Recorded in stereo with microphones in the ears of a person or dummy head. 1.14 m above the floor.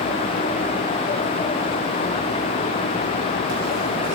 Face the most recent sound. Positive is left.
No sound to turn to.